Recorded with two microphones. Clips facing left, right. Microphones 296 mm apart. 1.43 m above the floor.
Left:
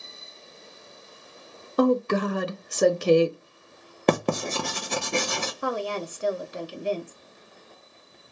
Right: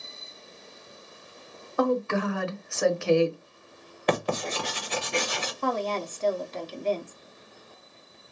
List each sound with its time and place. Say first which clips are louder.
1.8 s a woman speaking: left 4 dB; 45° left (ahead or behind), 0.6 m
4.1 s writing: left 4 dB; 55° left (ahead or behind), 0.7 m
5.6 s a woman speaking: right 1 dB; 10° left (ahead or behind), 0.7 m